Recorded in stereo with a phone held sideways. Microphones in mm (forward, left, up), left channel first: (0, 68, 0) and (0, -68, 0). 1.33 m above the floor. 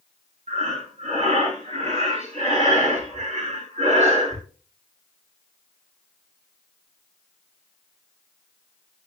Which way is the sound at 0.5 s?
60° right (ahead or behind).